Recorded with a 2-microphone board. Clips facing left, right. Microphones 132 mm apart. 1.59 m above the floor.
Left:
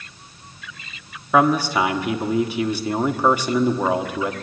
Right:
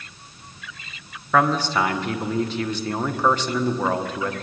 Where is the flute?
No flute in this recording.